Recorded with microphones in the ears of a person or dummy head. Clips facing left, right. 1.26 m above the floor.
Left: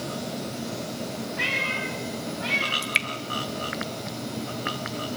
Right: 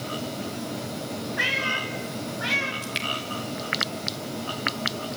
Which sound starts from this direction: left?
Dripping, at 2.8 s.